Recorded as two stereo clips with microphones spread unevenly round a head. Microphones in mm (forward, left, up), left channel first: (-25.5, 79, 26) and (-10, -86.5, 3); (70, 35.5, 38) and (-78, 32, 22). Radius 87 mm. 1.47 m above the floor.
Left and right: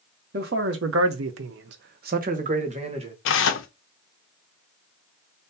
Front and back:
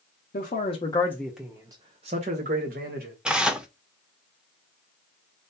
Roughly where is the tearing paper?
Left.